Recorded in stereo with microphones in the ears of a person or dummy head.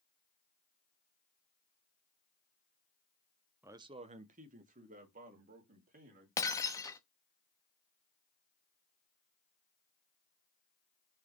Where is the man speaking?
10° right (ahead or behind), 0.6 m; by 6.3 s 50° right (ahead or behind), 3.5 m.